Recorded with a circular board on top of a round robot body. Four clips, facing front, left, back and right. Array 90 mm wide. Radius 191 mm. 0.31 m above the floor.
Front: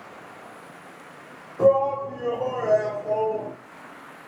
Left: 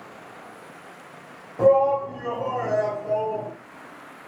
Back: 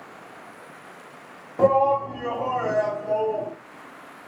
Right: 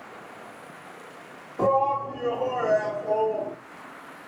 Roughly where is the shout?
Behind.